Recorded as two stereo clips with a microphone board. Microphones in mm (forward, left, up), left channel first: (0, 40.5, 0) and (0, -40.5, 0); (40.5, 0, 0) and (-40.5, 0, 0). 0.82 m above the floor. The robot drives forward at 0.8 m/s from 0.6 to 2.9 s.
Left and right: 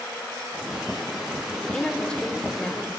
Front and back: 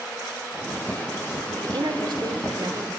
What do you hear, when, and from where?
1.6 s a woman speaking: 165° left, 2 m; by 2.9 s 170° left, 3 m